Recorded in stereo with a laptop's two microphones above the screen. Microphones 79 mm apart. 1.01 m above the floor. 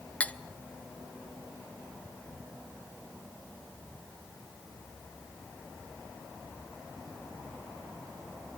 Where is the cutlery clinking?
15° left (ahead or behind), 0.7 m.